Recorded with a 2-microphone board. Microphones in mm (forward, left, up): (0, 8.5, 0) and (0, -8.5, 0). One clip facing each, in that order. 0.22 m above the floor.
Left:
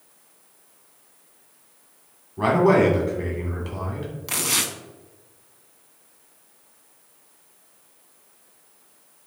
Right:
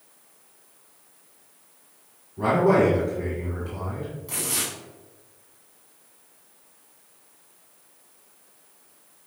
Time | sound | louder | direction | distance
2.4 | a man speaking | left 2 dB | 45° left (ahead or behind) | 1.4 m
4.3 | tearing paper | left 6 dB | 65° left (ahead or behind) | 0.6 m